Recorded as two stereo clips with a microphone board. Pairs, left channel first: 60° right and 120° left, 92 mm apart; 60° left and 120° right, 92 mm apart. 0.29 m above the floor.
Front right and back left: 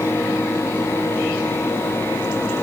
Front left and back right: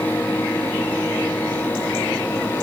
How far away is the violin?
I don't hear a violin.